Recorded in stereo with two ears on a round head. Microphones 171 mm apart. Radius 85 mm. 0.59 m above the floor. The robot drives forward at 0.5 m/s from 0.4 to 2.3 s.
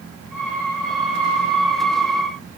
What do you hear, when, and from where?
Only background noise.